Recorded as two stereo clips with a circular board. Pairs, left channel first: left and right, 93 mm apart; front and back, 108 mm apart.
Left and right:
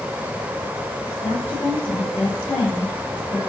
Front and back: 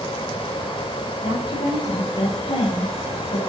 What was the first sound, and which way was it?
A woman speaking, 25° left.